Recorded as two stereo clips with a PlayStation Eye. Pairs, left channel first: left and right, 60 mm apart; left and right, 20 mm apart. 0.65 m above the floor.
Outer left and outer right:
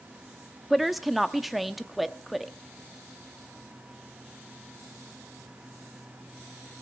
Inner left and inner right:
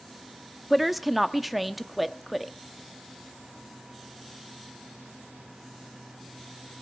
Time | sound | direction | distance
0.7 | a woman speaking | centre (ahead or behind) | 0.8 m